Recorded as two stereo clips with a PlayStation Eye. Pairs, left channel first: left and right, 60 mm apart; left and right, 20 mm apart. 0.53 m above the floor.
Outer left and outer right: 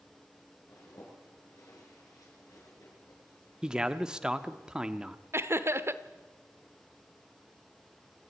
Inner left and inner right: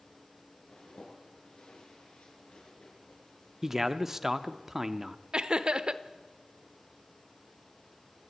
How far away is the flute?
I don't hear a flute.